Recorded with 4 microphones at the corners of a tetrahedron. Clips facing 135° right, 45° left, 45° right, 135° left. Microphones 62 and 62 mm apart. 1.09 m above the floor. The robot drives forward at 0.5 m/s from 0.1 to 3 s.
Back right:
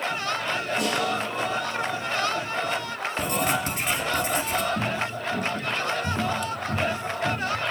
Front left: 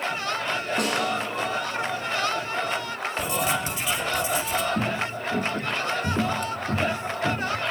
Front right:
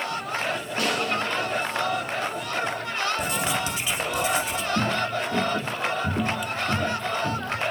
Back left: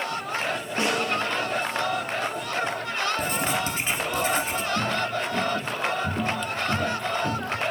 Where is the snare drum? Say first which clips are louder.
Front left 1 dB, back left 1 dB; 70° left, 8.5 m.